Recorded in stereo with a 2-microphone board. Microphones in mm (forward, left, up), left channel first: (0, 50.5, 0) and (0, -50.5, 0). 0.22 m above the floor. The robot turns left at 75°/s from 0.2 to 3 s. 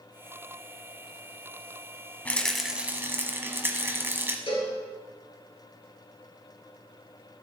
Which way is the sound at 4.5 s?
60° left (ahead or behind).